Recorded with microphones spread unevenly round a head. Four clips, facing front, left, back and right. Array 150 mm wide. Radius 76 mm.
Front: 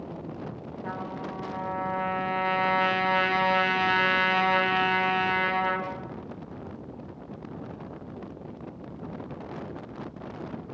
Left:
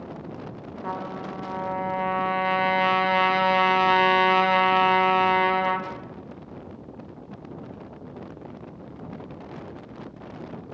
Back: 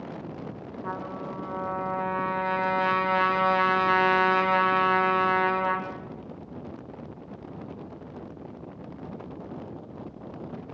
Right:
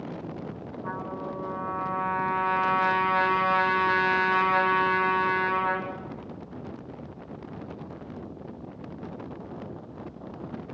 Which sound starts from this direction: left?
A trumpet, at 0.8 s.